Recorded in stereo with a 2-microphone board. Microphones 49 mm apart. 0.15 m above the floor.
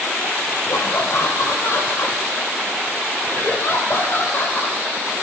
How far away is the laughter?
About 6 m.